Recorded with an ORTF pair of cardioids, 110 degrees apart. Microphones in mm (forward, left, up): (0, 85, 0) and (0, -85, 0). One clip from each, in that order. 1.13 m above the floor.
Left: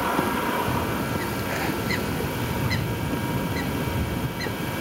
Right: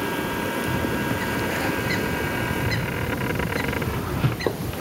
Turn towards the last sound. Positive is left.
turn(degrees=-5)